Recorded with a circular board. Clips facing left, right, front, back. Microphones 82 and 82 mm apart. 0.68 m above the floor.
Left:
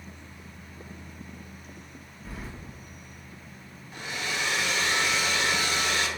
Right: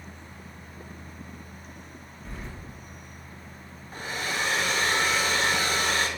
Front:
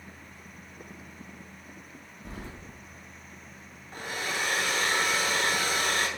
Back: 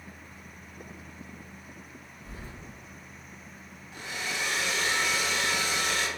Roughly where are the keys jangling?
Ahead.